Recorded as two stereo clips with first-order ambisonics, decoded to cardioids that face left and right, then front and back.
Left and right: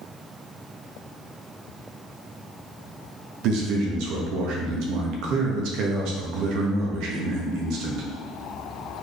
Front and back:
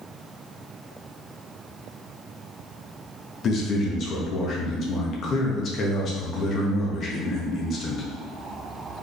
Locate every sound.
3.4 s a man speaking: 60° right, 1.0 m